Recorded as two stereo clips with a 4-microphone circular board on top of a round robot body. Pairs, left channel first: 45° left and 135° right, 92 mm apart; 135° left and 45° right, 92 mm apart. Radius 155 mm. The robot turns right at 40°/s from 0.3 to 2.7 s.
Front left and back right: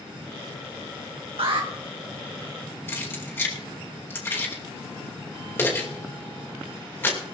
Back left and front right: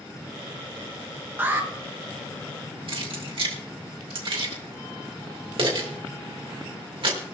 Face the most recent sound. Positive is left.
turn(degrees=-20)